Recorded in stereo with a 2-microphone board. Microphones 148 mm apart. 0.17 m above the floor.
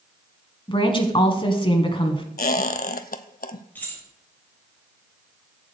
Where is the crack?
I don't hear a crack.